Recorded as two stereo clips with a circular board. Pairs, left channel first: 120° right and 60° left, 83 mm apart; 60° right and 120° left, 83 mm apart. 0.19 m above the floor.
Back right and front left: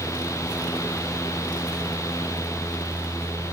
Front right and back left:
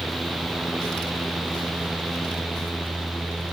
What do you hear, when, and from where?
Only background noise.